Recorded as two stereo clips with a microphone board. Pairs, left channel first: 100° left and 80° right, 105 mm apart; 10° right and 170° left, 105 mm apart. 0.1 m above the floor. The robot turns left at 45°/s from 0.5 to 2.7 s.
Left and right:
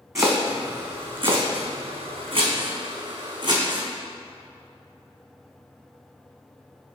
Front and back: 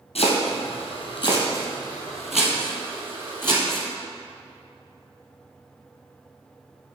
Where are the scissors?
I don't hear scissors.